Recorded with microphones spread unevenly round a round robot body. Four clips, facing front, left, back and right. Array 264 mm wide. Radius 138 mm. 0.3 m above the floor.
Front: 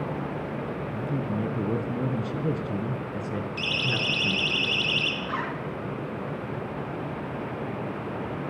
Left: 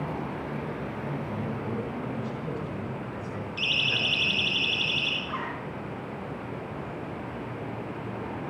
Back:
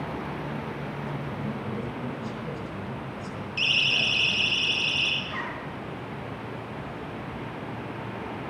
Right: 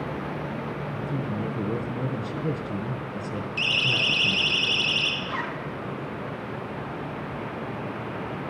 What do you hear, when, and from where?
0.9 s a man speaking: 25° right, 4 m
3.6 s a siren: 20° right, 4.5 m; by 5.1 s 30° right, 5.5 m
5.2 s a zipper: 35° right, 4.5 m